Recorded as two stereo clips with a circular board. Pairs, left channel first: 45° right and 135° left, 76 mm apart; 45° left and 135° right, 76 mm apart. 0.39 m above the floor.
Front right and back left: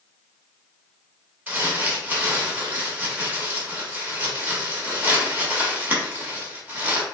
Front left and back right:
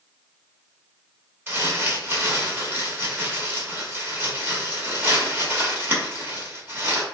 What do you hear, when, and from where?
1.5 s crumpling: 175° right, 0.9 m